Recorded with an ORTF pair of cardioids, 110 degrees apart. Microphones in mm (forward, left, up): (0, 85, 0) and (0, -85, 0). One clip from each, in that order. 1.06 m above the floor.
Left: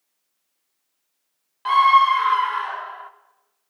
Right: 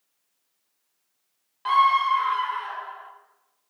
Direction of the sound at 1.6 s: 10° left.